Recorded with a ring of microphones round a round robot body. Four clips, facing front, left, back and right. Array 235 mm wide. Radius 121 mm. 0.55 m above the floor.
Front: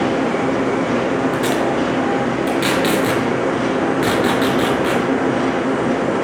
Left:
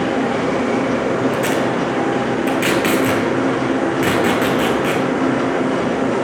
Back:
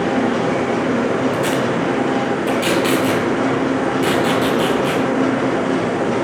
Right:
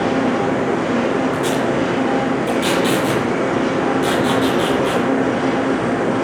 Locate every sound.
1.3 s tape being pulled: 55° left, 5.5 m